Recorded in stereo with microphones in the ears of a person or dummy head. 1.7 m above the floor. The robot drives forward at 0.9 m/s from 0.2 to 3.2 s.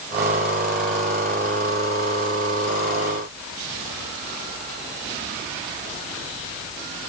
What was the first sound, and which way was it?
Only background noise.